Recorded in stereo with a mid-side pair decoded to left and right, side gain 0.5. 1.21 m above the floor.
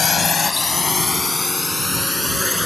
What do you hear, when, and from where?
0.0 s a drone: 35° left; by 2.7 s 10° left